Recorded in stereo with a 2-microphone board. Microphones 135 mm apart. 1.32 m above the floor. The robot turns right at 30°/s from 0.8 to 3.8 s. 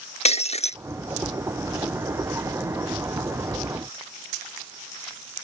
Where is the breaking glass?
50° left (ahead or behind).